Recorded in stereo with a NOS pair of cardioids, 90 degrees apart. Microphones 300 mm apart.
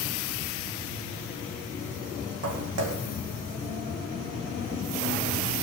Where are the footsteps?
55° right, 4 m; by 5.2 s 75° right, 4.5 m.